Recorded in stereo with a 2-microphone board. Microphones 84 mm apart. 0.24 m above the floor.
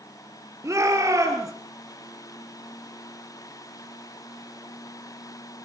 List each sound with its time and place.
0.6 s a shout: 35° right (ahead or behind), 5.5 m